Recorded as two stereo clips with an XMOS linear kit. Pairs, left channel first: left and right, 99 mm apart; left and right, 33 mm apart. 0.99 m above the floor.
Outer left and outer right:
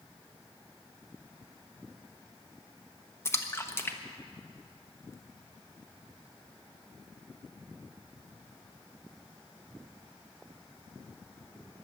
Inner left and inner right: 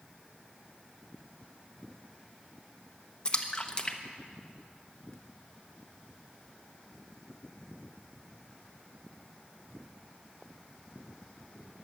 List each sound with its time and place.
3.2 s a splash: 25° left (ahead or behind), 0.9 m